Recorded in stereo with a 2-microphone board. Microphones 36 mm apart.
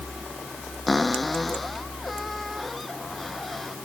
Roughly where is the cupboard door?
Centre.